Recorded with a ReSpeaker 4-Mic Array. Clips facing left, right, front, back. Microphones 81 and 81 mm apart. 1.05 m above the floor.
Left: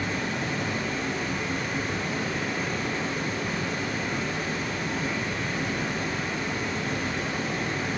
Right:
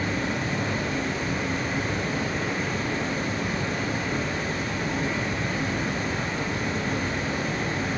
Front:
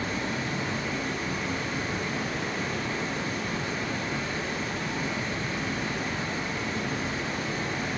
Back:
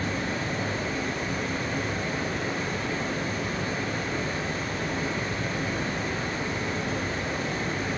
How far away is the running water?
About 1.7 m.